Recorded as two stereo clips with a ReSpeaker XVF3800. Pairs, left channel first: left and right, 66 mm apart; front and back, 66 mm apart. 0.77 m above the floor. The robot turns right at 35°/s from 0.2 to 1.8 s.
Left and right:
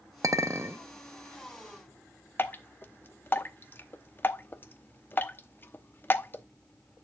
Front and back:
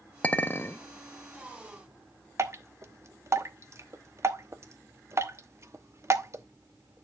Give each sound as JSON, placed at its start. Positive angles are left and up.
{"t": 0.2, "sound": "a clink", "azimuth_deg": -65, "distance_m": 0.6}
{"t": 2.4, "sound": "dripping", "azimuth_deg": 145, "distance_m": 0.8}